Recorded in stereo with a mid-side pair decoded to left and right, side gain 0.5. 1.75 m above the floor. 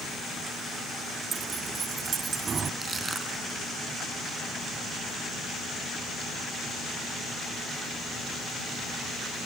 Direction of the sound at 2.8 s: 30° right.